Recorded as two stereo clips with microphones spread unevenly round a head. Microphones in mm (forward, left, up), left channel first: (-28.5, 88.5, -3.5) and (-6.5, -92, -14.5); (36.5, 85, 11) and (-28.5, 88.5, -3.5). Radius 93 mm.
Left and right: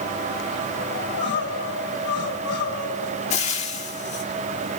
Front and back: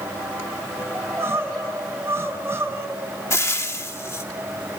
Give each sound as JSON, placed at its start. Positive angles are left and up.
{"t": 0.9, "sound": "crying", "azimuth_deg": 120, "distance_m": 5.5}
{"t": 3.3, "sound": "frying", "azimuth_deg": 40, "distance_m": 3.0}